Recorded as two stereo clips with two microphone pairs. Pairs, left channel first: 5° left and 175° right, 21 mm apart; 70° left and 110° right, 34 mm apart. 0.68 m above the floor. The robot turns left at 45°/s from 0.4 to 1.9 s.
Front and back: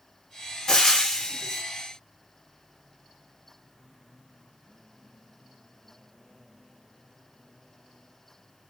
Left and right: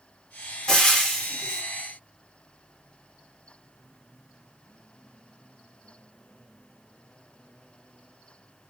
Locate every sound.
0.7 s frying: 20° left, 0.8 m; by 1.6 s 20° right, 0.8 m